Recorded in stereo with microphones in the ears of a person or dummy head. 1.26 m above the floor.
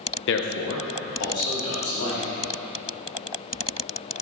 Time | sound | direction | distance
0.3 | a man speaking | 60° left (ahead or behind) | 0.7 m